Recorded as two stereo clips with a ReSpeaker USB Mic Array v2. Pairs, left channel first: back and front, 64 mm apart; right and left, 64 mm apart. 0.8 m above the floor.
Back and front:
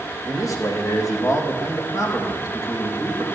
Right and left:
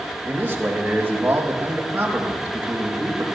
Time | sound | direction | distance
0.2 | a man speaking | 155° left | 4 m